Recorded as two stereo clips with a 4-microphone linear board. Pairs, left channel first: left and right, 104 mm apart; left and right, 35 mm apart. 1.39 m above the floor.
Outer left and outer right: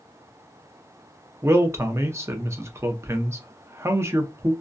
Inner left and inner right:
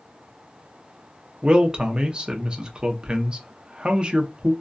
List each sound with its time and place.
1.4 s a man speaking: 25° right (ahead or behind), 0.6 m